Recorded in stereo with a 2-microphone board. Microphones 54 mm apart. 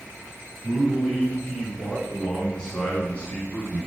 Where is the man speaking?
Centre (ahead or behind), 5 m; by 3.9 s 30° left (ahead or behind), 4 m.